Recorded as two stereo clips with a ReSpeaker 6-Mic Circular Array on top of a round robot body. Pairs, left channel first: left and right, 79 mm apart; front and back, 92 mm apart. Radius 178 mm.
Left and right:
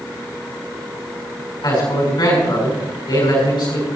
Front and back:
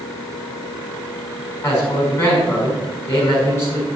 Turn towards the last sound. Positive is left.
turn(degrees=60)